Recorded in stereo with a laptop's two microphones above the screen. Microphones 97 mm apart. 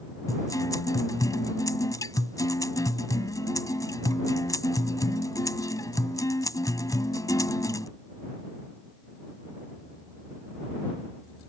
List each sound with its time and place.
0.3 s a guitar: 40° left (ahead or behind)